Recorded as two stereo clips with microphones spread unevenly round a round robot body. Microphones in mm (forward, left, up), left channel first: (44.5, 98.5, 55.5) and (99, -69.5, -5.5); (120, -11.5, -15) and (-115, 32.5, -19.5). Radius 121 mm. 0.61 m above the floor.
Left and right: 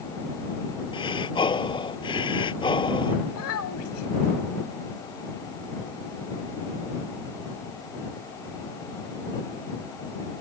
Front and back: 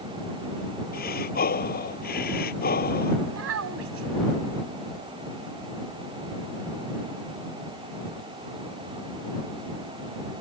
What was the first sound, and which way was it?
Breathing, 45° left.